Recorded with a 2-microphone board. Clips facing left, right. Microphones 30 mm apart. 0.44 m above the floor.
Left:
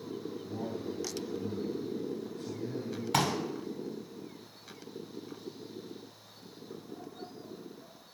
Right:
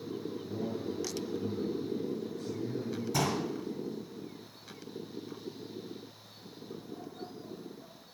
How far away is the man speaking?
About 3.5 m.